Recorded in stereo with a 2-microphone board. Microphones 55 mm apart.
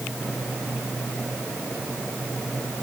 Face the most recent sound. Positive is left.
No sound to turn to.